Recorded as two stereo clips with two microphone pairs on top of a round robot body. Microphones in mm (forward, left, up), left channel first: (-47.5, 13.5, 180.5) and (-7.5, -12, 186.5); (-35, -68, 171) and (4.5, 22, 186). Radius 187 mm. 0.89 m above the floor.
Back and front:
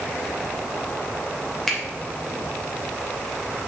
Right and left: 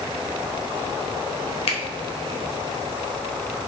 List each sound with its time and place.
1.7 s a finger snap: 125° right, 3 m